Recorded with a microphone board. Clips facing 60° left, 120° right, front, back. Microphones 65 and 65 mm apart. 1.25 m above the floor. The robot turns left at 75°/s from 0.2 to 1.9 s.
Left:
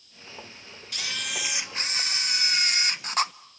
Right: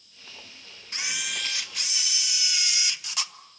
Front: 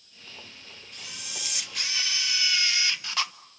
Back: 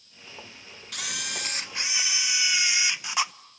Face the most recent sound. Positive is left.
turn(degrees=105)